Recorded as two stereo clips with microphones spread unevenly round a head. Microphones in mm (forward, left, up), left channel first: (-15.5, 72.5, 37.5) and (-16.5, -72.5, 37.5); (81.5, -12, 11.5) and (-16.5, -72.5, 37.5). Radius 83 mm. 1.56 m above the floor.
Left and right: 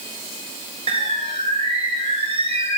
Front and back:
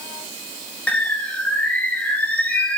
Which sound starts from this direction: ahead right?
A bird, at 0.9 s.